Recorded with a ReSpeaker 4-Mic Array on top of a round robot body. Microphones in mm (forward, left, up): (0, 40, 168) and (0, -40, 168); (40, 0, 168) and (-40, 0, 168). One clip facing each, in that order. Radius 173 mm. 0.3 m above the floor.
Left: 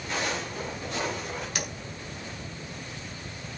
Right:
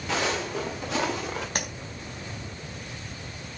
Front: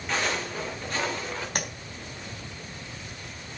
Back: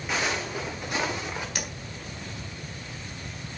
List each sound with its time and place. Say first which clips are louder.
0.1 s footsteps: right 4 dB, even; 95° right, 3.5 m; by 1.4 s 105° right, 4 m
1.6 s tapping: right 2 dB, front 3 dB; 45° right, 4 m